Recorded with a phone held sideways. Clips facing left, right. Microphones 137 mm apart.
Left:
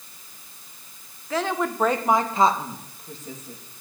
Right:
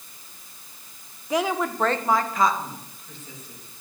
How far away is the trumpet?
No trumpet in this recording.